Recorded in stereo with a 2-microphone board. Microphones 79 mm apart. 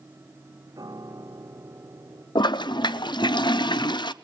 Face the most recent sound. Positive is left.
turn(degrees=75)  # may be behind; listen again after turning